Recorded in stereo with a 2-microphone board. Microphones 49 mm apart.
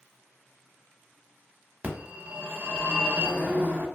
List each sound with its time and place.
1.8 s a phone ringing: 30° right (ahead or behind), 0.8 m